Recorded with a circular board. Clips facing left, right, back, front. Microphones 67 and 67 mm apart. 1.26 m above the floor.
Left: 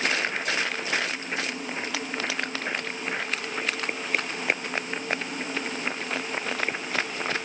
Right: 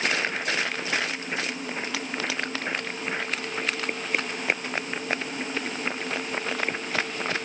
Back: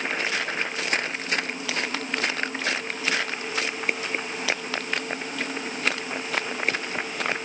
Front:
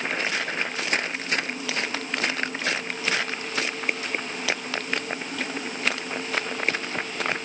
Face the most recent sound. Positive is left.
No sound to turn to.